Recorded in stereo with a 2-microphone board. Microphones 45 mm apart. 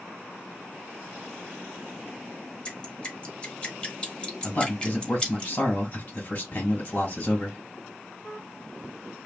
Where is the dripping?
20° left (ahead or behind), 1.2 m.